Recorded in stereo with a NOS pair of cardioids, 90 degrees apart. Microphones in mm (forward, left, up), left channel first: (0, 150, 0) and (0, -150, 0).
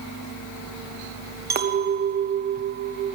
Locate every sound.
1.5 s a clink: 35° right, 1.0 m